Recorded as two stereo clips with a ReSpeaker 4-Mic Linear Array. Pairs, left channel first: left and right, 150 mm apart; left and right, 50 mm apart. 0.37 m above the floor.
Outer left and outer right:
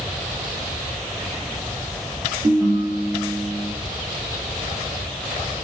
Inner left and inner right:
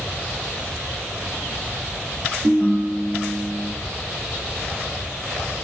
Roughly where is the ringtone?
Right.